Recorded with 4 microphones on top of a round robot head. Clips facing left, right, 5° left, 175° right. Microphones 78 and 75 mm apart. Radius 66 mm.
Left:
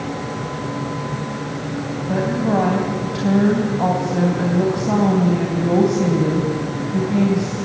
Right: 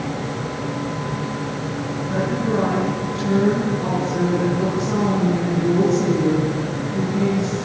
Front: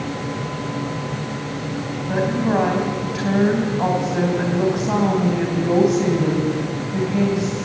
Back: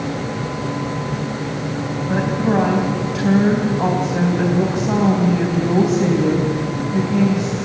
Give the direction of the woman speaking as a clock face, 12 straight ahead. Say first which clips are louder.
Left 3 dB, back 1 dB; 9 o'clock.